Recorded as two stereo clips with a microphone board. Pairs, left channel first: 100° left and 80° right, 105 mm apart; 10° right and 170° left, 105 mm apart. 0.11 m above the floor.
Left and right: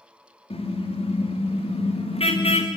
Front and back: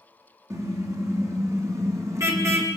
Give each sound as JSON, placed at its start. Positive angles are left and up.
{"t": 0.5, "sound": "a car horn", "azimuth_deg": 115, "distance_m": 4.5}